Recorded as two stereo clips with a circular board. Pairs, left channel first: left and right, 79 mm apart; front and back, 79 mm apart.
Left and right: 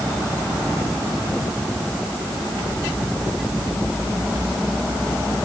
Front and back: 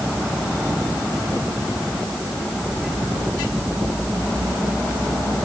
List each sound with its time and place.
Only background noise.